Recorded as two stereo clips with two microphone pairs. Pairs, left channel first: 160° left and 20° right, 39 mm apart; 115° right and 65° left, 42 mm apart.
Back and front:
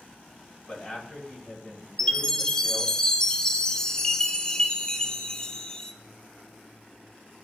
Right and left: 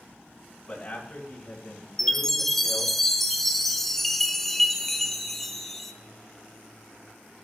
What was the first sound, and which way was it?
A man speaking, 155° right.